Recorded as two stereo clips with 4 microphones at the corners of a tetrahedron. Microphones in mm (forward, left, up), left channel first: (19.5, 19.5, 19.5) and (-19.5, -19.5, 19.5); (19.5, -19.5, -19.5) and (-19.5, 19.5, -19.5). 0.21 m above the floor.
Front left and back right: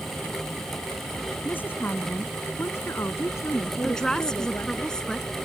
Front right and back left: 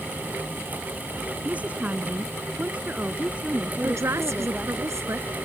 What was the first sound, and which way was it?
A woman speaking, 85° left.